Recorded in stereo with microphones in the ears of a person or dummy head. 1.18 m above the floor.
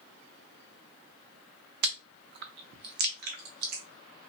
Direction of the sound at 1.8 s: 50° right (ahead or behind).